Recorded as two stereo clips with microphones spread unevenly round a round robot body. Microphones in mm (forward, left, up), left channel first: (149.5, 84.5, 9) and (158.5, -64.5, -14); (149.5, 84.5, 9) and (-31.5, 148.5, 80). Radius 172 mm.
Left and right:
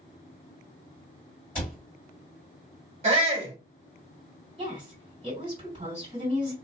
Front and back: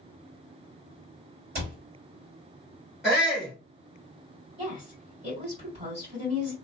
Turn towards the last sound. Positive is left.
turn(degrees=-125)